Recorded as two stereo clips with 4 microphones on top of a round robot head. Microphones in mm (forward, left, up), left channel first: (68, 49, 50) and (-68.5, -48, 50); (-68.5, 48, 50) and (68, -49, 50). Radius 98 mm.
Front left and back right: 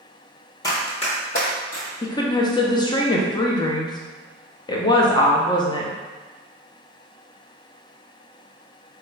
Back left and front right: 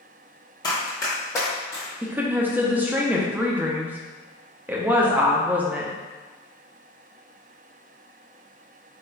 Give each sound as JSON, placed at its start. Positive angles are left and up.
{"t": 0.6, "sound": "running footsteps", "azimuth_deg": 95, "distance_m": 0.7}
{"t": 2.0, "sound": "a woman speaking", "azimuth_deg": 30, "distance_m": 0.5}